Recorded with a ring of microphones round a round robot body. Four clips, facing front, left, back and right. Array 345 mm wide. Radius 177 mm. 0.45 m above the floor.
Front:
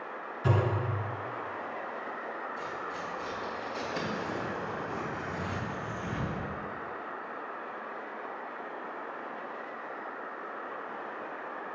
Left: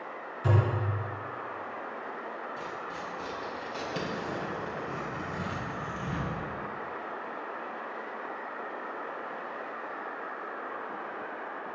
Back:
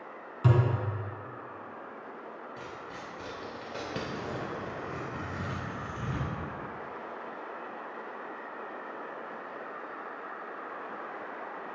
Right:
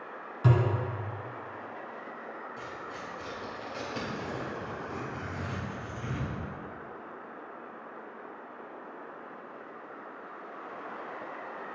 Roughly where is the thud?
Behind right.